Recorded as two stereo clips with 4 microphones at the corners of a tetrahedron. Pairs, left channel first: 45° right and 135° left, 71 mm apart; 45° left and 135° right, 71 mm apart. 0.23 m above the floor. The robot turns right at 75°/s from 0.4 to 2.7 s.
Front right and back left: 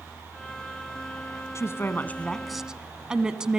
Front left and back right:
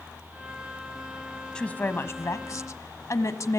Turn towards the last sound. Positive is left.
turn(degrees=55)